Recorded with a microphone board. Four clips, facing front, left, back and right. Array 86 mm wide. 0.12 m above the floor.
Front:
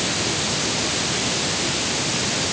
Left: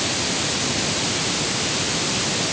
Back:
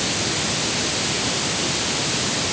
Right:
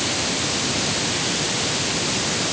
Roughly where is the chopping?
I don't hear chopping.